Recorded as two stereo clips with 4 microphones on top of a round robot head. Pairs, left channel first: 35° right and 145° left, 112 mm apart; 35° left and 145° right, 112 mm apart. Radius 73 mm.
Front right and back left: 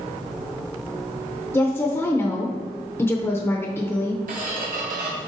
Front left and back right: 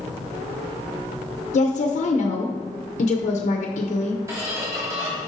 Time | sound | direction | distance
1.5 | a woman speaking | 35° left | 0.7 m
4.3 | a squeak | 150° left | 1.4 m